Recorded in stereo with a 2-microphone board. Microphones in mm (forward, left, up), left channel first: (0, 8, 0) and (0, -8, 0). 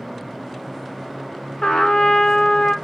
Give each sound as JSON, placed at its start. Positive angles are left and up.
{"t": 1.6, "sound": "a trumpet", "side_deg": 70, "distance_m": 1.4}